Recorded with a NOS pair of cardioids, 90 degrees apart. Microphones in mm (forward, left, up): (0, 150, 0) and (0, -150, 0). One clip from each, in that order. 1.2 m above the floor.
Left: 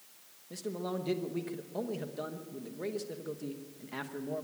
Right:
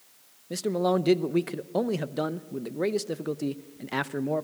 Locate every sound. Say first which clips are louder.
0.5 s a man speaking: right 12 dB; 55° right, 0.8 m